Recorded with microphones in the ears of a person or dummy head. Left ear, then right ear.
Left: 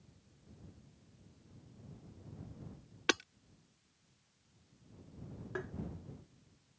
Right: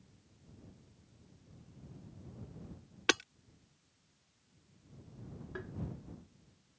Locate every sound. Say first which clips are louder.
3.1 s hammering: right 2 dB; 10° right (ahead or behind)
5.5 s tapping: left 4 dB; 25° left (ahead or behind)